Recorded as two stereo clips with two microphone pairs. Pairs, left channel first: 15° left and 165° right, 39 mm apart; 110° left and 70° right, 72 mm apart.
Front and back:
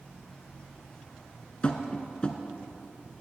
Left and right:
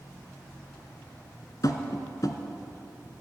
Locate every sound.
1.6 s tapping: 75° left, 1.1 m